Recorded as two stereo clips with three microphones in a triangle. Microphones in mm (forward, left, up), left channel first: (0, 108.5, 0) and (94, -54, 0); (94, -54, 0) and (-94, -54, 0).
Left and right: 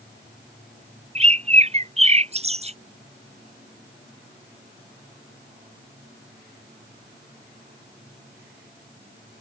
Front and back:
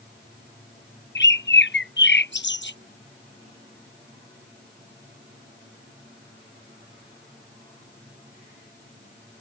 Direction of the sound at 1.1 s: 5° right.